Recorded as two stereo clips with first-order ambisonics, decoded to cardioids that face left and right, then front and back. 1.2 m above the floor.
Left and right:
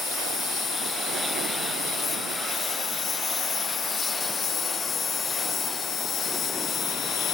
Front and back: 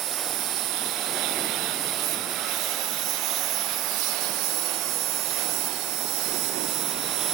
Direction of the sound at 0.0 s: 155° left.